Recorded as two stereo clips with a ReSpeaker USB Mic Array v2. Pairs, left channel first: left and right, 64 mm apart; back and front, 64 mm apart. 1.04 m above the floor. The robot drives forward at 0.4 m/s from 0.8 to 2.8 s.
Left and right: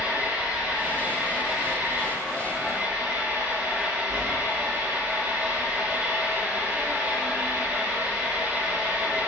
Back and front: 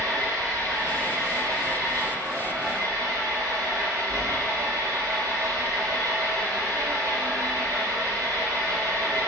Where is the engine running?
15° right, 7 m; by 9.3 s 20° right, 6.5 m.